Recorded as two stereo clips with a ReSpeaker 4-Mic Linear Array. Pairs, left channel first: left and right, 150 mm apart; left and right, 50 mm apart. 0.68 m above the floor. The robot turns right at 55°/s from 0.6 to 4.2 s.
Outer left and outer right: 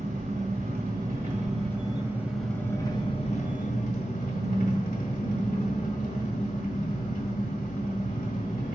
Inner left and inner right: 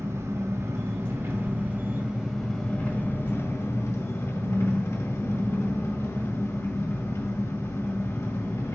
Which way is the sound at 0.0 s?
100° right.